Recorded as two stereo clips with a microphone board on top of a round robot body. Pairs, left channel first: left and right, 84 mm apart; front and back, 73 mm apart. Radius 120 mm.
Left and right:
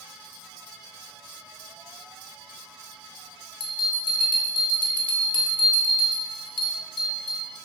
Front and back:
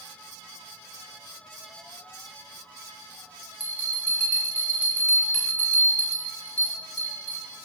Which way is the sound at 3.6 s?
70° left.